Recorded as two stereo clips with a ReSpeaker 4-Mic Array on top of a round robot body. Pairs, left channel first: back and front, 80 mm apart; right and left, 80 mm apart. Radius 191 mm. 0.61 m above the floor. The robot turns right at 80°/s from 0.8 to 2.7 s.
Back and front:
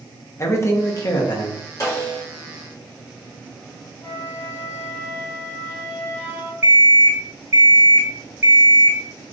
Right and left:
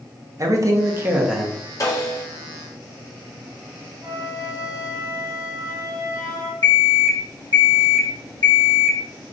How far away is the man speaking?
About 1.2 m.